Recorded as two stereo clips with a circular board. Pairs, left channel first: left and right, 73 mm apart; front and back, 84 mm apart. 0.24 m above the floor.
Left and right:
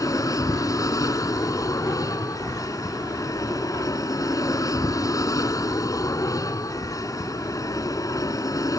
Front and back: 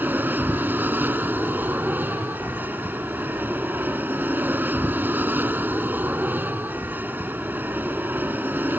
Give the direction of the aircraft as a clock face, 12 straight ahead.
8 o'clock.